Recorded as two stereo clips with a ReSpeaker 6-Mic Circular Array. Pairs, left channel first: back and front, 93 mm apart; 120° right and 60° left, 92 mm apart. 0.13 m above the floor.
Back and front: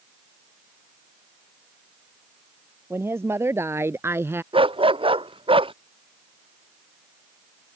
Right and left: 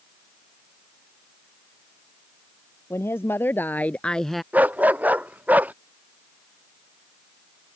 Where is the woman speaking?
60° right; by 4.4 s 30° right.